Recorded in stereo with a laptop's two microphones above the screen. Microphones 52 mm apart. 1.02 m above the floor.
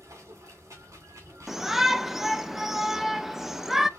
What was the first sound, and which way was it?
Running water, 75° right (ahead or behind).